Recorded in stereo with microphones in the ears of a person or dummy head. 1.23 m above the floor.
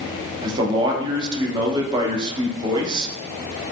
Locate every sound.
0.4 s a man speaking: 25° right (ahead or behind), 0.8 m